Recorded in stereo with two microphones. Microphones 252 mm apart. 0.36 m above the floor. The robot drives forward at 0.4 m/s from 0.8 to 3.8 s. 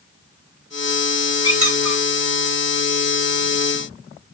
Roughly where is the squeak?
Right.